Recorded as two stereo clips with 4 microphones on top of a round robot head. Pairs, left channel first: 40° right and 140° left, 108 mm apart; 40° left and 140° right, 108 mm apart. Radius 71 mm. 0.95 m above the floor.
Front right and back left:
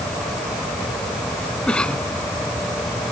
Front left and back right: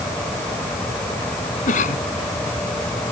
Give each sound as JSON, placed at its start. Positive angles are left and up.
{"t": 1.7, "sound": "a cough", "azimuth_deg": 40}